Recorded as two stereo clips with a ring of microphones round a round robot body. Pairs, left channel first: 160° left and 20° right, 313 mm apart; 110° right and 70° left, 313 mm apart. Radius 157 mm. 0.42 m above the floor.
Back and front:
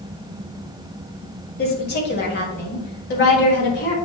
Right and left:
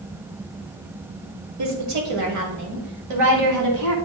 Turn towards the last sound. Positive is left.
turn(degrees=100)